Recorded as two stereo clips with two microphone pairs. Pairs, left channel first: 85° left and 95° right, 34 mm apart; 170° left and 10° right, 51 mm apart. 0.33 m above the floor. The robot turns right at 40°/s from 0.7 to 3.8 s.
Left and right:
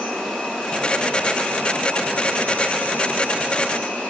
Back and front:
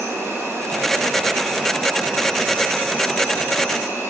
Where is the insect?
20° left, 7 m; by 4.1 s 145° left, 7 m.